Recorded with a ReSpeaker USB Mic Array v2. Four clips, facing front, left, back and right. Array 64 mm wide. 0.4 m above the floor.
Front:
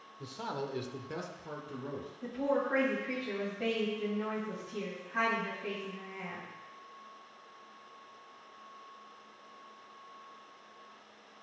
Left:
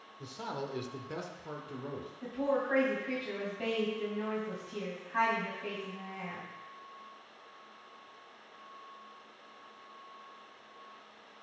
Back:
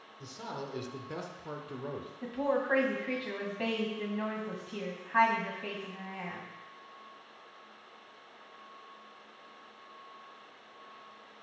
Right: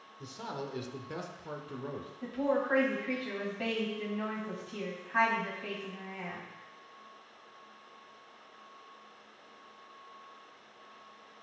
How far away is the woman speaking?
About 2.5 m.